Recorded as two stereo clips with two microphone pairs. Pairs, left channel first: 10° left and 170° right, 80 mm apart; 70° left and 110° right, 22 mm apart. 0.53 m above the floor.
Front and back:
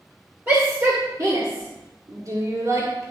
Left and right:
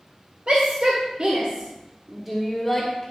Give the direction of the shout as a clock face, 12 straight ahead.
4 o'clock.